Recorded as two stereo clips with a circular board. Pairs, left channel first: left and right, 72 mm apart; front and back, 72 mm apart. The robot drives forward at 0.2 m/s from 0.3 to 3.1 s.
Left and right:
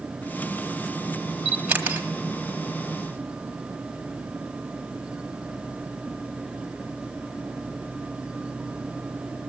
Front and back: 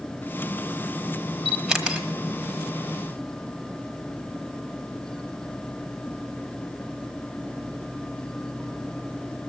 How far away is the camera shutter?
About 1.2 m.